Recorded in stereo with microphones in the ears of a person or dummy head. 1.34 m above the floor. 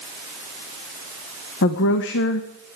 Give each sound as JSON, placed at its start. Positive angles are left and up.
{"t": 1.6, "sound": "a woman speaking", "side_deg": 60, "distance_m": 1.1}